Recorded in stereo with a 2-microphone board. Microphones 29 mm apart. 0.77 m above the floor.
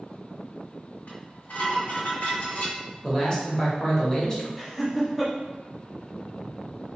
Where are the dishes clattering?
75° left (ahead or behind), 1.4 m.